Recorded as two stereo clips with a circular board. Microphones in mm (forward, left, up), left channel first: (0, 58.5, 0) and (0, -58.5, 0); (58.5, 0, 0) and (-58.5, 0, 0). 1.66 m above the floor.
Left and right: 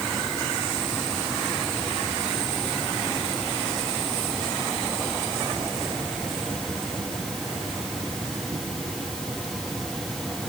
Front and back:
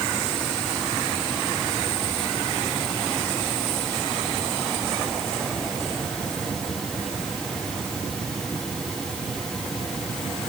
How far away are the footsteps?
No footsteps in this recording.